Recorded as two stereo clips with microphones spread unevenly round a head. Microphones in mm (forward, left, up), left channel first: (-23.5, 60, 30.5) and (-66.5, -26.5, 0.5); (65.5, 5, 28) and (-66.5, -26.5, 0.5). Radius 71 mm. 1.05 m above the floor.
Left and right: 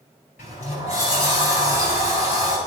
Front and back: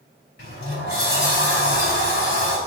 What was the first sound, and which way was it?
A sliding door, 40° left.